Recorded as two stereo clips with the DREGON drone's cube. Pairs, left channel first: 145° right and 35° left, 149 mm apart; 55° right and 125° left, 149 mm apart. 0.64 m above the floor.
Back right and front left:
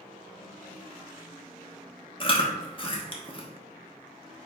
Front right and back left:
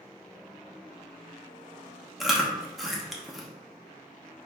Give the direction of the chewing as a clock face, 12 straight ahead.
5 o'clock.